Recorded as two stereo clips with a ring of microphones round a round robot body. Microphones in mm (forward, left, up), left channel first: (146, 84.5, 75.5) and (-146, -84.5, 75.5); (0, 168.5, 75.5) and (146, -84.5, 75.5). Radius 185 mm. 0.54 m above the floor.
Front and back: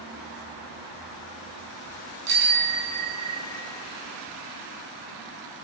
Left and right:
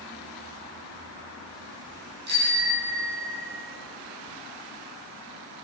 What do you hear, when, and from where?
2.3 s a bicycle bell: 120° right, 4.5 m